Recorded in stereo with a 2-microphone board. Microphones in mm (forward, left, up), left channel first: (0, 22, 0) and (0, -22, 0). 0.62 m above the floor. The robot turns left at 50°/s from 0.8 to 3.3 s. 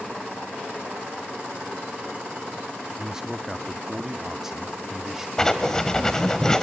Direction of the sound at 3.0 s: 20° right (ahead or behind).